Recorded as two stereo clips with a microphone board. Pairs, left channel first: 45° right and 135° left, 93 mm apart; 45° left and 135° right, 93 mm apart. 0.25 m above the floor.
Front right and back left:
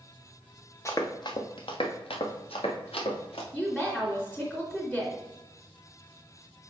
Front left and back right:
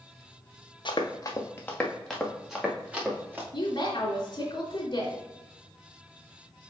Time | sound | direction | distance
0.8 | running footsteps | 10° left | 1.5 m
3.5 | a woman speaking | 35° left | 2 m